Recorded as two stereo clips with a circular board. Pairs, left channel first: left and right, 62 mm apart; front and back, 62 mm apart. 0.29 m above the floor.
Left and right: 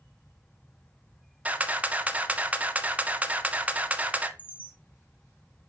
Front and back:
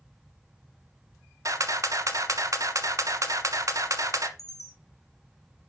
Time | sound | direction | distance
1.4 | a camera shutter | 155° right | 0.9 m
4.4 | a chime | 25° left | 3 m